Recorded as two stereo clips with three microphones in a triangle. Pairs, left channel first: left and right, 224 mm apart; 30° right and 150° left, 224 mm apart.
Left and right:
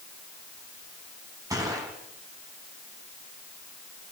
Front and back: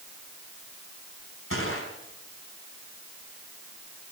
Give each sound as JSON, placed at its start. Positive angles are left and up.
{"t": 1.5, "sound": "a gunshot", "azimuth_deg": -15, "distance_m": 4.0}